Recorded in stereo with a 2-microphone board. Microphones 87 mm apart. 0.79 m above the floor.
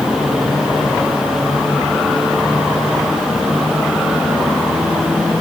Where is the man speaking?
I don't hear a man speaking.